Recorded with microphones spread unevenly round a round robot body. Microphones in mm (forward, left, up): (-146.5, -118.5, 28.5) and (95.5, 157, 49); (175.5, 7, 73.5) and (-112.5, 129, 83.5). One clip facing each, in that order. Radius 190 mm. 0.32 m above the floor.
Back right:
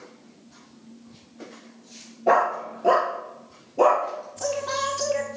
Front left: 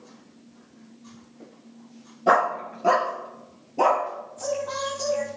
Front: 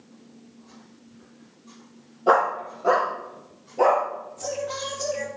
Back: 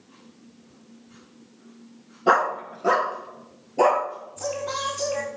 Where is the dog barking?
105° left, 2.5 m; by 4.0 s 120° left, 4 m.